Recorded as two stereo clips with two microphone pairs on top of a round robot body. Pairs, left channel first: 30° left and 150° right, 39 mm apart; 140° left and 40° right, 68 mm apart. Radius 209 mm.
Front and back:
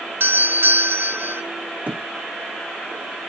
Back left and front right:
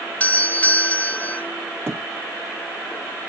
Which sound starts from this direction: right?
A thud, at 1.9 s.